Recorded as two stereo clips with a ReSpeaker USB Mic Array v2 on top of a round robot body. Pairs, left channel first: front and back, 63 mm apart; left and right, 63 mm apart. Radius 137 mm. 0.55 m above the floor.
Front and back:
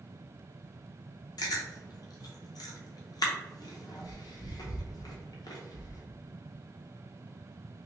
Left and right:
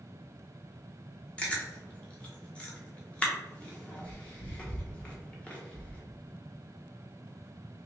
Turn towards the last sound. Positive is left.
turn(degrees=20)